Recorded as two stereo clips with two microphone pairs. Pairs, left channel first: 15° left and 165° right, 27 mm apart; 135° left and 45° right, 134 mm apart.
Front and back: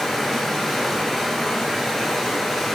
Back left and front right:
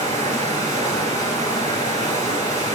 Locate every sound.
0.0 s running water: 65° right, 0.8 m